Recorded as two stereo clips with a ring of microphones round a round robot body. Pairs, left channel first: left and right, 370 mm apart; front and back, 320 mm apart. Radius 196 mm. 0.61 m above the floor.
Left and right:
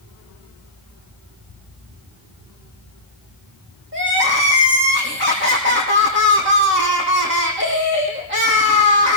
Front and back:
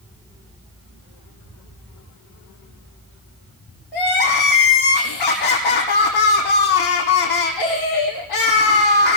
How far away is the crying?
About 5.5 m.